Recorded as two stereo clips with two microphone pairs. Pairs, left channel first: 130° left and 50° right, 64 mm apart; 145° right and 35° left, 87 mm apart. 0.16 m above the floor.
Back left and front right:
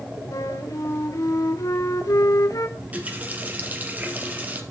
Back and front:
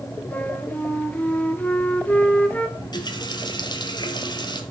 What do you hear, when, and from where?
0.3 s a flute: 140° left, 1.3 m
2.8 s a running tap: 115° right, 2 m